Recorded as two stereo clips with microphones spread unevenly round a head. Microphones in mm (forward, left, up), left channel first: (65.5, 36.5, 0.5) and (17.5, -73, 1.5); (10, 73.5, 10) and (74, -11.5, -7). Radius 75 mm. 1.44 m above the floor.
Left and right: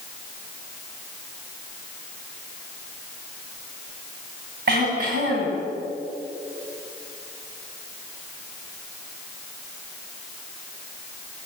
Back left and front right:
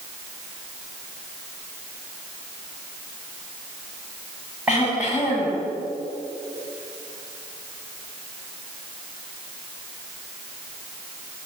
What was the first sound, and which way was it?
Throat clearing, 135° right.